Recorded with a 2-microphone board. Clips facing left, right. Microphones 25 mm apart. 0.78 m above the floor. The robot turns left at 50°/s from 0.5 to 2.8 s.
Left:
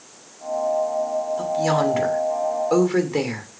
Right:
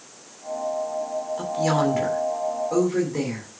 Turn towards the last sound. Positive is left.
turn(degrees=120)